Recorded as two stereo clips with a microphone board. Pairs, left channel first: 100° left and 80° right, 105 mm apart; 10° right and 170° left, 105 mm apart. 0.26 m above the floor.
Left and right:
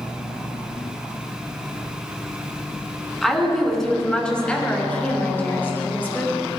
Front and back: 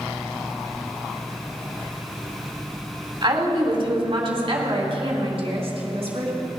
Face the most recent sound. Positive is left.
turn(degrees=170)